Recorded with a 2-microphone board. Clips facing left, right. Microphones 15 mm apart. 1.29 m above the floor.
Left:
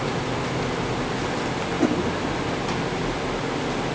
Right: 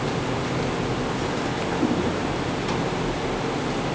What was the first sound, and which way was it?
A whoosh, 70° left (ahead or behind).